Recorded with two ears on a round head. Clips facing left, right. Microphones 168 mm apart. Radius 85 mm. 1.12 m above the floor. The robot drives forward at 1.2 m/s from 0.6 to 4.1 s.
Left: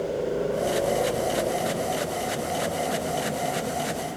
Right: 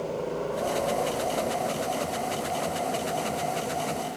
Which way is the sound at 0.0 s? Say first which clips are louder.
Left 4 dB; 25° left (ahead or behind).